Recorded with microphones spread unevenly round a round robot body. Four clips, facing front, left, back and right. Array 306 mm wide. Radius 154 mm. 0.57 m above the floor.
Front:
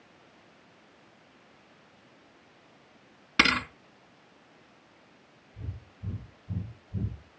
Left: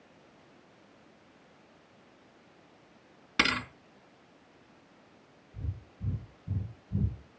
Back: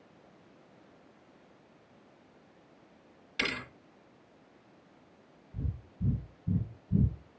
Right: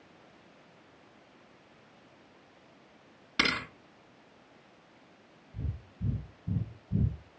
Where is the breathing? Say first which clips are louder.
Right 3 dB, back 7 dB; 165° right, 4 m.